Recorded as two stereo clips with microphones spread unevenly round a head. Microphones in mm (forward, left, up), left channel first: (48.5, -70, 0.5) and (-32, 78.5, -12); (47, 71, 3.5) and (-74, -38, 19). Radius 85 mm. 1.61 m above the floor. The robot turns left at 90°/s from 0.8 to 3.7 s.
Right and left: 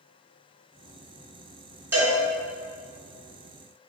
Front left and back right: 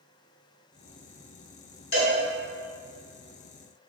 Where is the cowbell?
40° left, 1.9 m; by 2.1 s 20° left, 1.9 m.